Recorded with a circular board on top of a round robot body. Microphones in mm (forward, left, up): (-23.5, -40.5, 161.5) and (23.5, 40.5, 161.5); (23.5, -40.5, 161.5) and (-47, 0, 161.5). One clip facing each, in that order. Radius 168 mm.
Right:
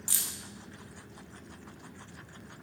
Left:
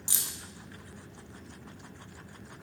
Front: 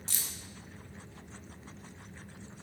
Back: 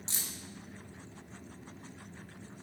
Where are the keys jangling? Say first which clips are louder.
Left 2 dB, even; 110° left, 0.5 m.